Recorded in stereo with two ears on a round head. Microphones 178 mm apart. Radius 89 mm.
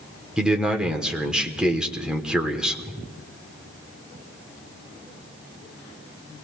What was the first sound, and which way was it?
A man speaking, 5° right (ahead or behind).